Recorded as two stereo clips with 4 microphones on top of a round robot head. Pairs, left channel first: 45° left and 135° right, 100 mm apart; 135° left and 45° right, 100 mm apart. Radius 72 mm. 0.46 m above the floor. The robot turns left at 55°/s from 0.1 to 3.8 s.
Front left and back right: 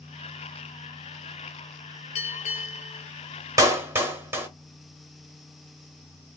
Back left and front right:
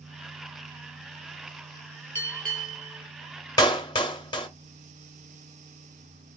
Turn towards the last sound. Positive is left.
turn(degrees=165)